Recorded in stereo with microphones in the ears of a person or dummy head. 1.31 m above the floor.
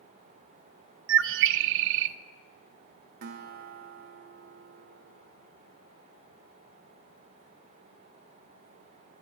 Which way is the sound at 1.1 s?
70° right (ahead or behind).